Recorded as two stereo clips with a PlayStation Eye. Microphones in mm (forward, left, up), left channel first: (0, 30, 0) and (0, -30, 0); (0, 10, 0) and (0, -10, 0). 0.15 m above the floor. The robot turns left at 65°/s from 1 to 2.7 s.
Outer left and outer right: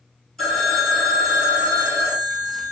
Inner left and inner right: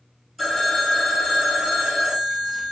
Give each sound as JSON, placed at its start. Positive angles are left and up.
{"t": 0.4, "sound": "a phone ringing", "azimuth_deg": 5, "distance_m": 3.0}